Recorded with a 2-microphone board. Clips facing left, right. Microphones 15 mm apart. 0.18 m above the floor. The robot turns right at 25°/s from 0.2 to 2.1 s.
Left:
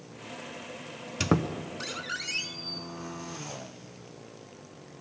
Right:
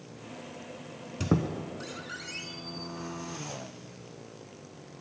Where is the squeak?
50° left (ahead or behind), 0.5 m; by 2.8 s 35° left (ahead or behind), 0.5 m.